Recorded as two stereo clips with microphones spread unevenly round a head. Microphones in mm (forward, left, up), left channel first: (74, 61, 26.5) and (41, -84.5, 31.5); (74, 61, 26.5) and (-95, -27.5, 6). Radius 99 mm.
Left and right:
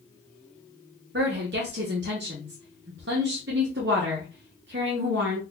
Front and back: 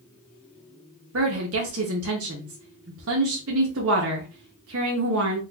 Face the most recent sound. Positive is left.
turn(degrees=-135)